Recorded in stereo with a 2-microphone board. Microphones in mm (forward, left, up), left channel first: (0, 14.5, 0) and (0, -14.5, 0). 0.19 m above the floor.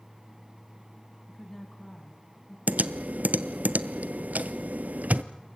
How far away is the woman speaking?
About 1.3 m.